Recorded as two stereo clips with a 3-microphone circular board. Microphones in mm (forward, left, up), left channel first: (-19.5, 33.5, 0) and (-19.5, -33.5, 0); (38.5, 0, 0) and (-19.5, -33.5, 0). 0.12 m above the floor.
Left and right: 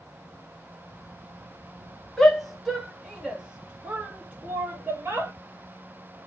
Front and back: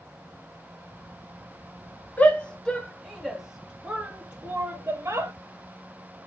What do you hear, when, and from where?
2.2 s a shout: 10° left, 1.3 m; by 5.3 s 135° right, 1.7 m